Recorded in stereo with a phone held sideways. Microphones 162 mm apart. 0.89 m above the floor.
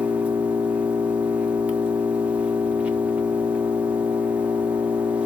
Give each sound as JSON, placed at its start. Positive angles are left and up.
{"t": 0.0, "sound": "an engine running", "side_deg": -10, "distance_m": 1.1}